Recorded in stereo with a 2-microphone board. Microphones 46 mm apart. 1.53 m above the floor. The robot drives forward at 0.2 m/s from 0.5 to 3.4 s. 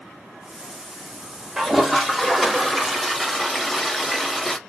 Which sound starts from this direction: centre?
A toilet flushing, at 1.6 s.